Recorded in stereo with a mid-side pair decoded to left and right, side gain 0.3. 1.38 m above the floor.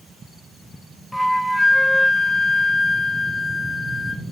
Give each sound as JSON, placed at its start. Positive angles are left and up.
{"t": 1.1, "sound": "a flute", "azimuth_deg": 15, "distance_m": 1.4}